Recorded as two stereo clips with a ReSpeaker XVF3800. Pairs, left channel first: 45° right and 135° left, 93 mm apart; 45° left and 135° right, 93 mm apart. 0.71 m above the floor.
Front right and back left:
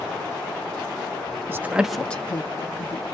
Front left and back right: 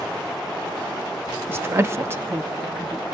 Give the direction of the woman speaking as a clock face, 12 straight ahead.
6 o'clock.